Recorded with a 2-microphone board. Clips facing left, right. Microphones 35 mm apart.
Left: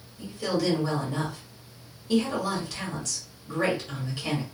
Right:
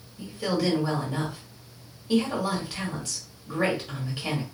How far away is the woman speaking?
About 1.4 m.